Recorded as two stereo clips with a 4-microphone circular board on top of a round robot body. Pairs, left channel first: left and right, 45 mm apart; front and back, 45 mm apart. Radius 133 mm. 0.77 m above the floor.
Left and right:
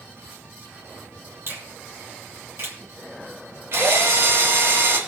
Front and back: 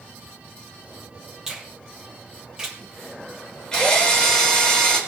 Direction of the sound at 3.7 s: 75° right.